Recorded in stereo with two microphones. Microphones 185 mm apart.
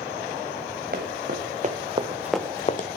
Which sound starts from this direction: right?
Running footsteps, at 0.9 s.